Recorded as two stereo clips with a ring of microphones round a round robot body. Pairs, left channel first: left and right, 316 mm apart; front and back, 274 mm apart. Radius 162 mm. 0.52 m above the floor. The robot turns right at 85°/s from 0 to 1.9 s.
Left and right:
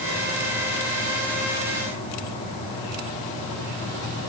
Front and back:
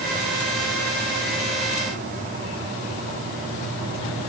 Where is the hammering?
I don't hear hammering.